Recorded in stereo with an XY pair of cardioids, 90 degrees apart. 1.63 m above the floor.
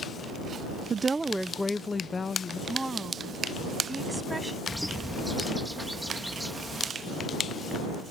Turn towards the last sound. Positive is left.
turn(degrees=0)